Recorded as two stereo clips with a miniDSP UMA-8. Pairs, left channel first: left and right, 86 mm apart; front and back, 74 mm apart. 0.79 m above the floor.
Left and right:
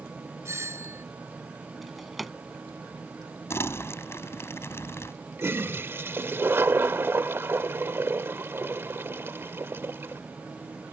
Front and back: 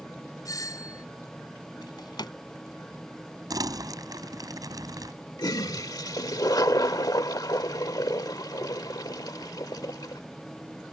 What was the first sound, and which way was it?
A doorbell, 35° right.